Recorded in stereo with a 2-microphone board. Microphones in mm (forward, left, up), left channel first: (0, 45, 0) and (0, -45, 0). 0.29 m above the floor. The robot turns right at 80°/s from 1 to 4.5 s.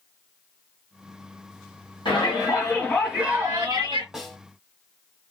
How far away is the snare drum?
About 1.6 m.